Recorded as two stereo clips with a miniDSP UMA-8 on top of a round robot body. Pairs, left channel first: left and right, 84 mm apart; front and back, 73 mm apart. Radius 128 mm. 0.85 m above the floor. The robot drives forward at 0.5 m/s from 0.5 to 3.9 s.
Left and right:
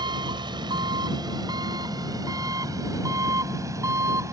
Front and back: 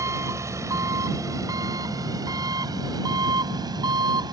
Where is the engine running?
130° right; by 4.3 s 145° right.